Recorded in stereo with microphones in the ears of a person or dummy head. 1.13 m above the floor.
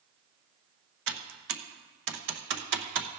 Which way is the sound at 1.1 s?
60° right (ahead or behind).